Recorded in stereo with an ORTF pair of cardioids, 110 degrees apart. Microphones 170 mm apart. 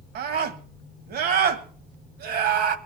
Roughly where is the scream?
Right.